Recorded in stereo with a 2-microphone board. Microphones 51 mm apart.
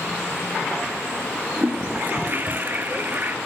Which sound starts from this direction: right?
A toilet flushing, at 1.6 s.